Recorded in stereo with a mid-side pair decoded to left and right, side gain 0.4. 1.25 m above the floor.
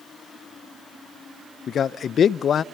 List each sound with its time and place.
1.7 s a man speaking: 60° left, 0.7 m